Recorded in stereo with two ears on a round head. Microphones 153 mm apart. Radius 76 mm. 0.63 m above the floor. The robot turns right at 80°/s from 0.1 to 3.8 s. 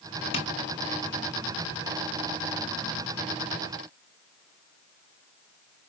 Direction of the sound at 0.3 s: 35° left (ahead or behind).